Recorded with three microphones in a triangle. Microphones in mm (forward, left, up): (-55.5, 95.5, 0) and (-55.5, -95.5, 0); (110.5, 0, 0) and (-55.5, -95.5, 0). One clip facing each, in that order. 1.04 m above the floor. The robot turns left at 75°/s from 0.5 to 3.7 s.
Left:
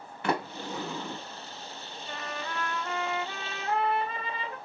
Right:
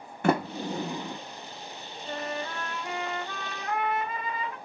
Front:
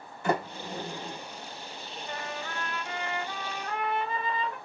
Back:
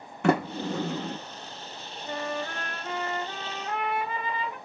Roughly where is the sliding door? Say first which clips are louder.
Right 5 dB, back 6 dB; behind right.